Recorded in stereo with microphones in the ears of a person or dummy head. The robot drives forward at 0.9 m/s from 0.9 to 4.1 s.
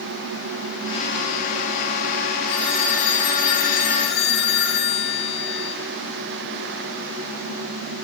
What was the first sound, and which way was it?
A phone ringing, 35° left (ahead or behind).